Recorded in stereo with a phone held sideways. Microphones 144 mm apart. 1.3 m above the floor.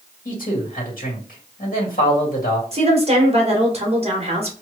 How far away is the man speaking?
About 1.9 m.